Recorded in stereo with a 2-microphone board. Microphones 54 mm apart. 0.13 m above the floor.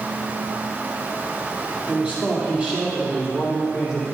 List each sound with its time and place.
1.9 s a man speaking: 20° right (ahead or behind), 3.5 m